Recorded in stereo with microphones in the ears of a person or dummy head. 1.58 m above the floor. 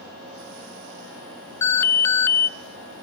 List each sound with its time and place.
1.6 s an alarm: 10° left (ahead or behind), 0.7 m